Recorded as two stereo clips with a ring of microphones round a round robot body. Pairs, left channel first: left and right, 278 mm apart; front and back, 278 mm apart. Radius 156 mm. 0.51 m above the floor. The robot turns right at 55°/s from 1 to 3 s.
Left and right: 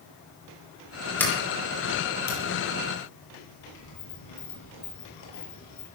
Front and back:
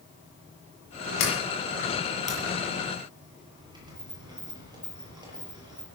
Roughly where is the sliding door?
Ahead.